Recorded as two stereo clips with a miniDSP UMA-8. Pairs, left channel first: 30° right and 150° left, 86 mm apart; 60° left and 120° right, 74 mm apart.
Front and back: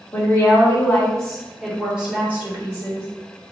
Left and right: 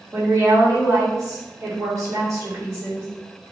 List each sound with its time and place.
0.1 s a woman speaking: 80° right, 1.6 m; by 3.1 s 165° right, 1.6 m